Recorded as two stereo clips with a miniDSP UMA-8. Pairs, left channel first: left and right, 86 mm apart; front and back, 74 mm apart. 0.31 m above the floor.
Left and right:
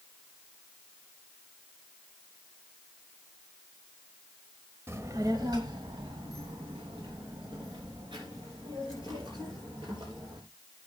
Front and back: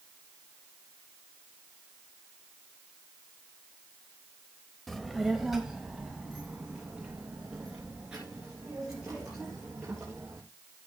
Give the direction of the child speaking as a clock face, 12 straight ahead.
3 o'clock.